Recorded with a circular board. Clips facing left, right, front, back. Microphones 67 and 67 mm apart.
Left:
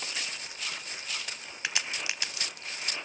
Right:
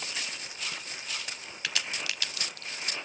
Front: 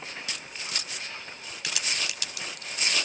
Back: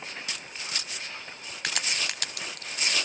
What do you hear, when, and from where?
1.6 s a crack: 155° left, 0.5 m